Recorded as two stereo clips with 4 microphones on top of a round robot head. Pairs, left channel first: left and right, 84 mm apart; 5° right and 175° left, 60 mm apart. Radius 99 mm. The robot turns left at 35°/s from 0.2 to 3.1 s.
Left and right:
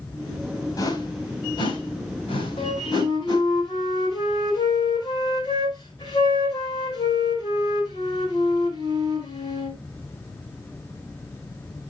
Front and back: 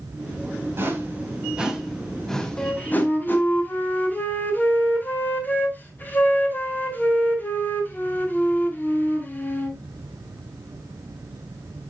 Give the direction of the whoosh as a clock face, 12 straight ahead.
8 o'clock.